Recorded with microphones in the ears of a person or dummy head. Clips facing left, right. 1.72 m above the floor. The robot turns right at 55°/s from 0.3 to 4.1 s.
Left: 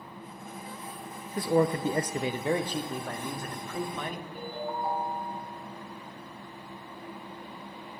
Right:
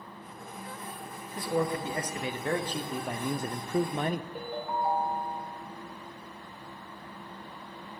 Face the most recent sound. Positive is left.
turn(degrees=-70)  # may be behind; listen again after turning